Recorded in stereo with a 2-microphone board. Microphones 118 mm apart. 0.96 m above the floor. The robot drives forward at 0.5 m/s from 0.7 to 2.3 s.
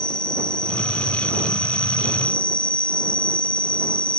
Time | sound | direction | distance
0.0 | an insect | 40° left (ahead or behind) | ?